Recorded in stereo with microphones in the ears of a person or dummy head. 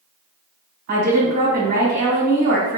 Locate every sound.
0.9 s a woman speaking: 50° right (ahead or behind), 1.5 m